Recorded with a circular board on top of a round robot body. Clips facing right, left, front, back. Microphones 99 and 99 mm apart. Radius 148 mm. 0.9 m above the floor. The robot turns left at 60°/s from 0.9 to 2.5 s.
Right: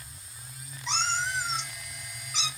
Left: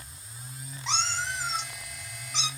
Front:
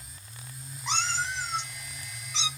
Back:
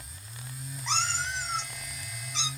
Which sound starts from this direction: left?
A cat meowing, at 0.9 s.